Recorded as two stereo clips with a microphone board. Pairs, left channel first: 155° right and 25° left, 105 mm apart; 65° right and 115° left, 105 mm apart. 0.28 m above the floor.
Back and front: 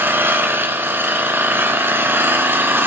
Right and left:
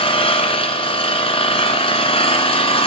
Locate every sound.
0.0 s an engine running: 45° right, 1.3 m